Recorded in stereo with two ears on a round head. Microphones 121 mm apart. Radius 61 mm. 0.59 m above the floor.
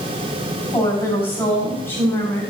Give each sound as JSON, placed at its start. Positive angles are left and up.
{"t": 0.7, "sound": "a woman speaking", "side_deg": 20, "distance_m": 6.0}